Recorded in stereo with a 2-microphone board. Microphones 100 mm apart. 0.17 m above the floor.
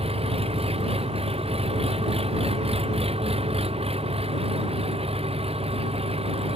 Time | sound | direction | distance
0.0 | an engine running | 80° right | ?